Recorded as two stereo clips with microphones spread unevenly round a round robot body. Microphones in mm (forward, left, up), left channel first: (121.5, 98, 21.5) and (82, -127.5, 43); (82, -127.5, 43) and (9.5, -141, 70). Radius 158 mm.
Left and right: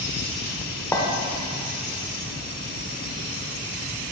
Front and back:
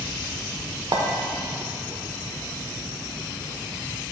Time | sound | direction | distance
0.9 | a clink | 150° left | 0.7 m